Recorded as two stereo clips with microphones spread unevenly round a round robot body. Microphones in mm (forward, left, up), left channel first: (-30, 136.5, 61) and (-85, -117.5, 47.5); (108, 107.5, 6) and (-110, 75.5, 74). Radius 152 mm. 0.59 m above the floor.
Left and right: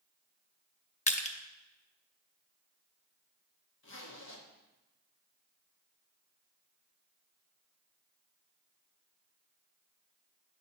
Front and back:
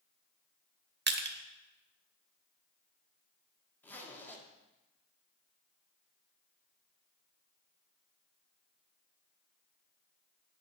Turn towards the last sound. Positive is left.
turn(degrees=65)